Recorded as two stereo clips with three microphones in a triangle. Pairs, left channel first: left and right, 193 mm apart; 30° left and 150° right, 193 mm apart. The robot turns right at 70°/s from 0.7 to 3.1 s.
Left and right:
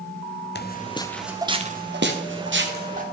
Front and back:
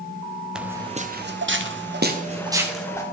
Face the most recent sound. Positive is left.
turn(degrees=-35)